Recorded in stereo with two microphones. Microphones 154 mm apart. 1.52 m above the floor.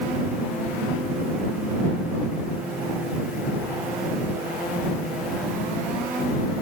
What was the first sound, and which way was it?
Only background noise.